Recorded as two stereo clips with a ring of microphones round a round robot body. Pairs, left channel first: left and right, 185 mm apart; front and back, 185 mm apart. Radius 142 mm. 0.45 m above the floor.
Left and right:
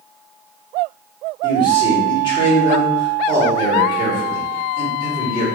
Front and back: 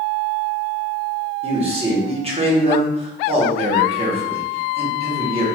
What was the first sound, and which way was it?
A man speaking, 145° left.